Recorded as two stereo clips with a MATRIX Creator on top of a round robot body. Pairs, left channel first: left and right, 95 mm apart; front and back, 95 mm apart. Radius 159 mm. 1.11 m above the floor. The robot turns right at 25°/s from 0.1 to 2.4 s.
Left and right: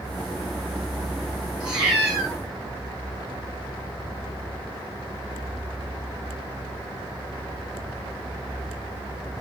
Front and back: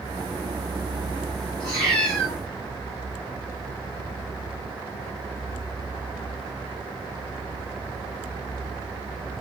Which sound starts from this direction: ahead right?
A cat meowing, at 1.6 s.